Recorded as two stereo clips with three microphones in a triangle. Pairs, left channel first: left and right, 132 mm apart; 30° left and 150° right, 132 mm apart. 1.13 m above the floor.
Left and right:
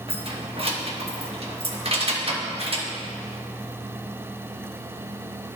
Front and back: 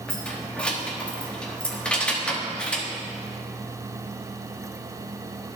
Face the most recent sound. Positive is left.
turn(degrees=-50)